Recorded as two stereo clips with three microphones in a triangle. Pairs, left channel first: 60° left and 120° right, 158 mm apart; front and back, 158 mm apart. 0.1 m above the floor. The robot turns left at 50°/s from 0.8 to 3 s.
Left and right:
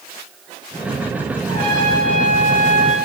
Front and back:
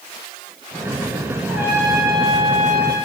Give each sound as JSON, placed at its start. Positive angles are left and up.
{"t": 1.5, "sound": "a trumpet", "azimuth_deg": -90, "distance_m": 8.5}